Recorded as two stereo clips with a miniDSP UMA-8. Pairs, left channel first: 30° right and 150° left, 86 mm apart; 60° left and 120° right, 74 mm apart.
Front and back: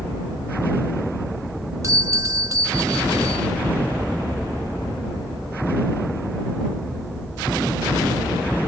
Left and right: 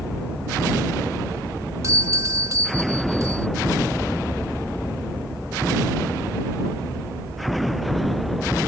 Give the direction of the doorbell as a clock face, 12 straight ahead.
5 o'clock.